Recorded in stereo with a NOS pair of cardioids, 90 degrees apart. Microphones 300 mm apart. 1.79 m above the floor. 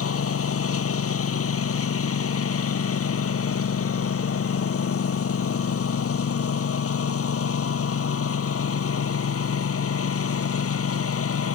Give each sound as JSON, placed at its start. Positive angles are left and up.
{"t": 0.0, "sound": "a lawn mower", "azimuth_deg": 50}